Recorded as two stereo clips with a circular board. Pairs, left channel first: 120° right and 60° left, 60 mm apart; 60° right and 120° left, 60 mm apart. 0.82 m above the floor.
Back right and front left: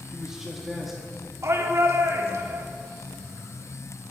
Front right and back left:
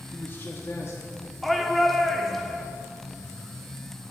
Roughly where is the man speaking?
Ahead.